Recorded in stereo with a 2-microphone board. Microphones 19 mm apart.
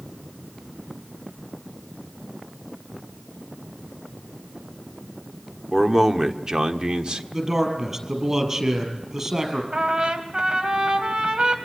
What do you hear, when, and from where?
5.7 s a man speaking: 15° right (ahead or behind), 1.4 m; by 7.2 s 55° right (ahead or behind), 1.5 m
7.3 s a man speaking: 20° right (ahead or behind), 5.5 m
9.7 s a trumpet: 50° right (ahead or behind), 2.5 m